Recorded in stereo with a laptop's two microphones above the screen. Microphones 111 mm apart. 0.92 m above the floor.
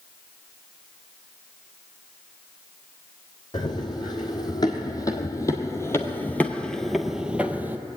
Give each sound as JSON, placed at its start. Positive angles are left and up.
{"t": 3.5, "sound": "running footsteps", "side_deg": 40, "distance_m": 2.0}